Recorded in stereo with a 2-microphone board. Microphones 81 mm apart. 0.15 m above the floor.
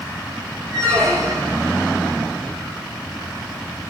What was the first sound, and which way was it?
A squeak, 35° right (ahead or behind).